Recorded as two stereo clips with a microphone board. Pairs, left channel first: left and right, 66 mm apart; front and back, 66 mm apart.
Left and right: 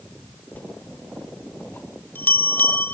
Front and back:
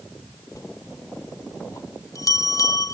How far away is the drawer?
No drawer in this recording.